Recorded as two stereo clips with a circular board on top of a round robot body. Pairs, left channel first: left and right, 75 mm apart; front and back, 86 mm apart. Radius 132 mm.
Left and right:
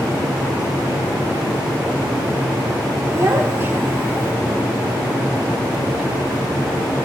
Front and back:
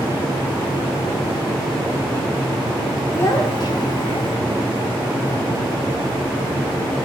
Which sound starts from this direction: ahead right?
A child speaking, at 3.1 s.